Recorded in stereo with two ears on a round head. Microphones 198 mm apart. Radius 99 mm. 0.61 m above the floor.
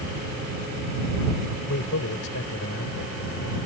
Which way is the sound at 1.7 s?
70° left (ahead or behind).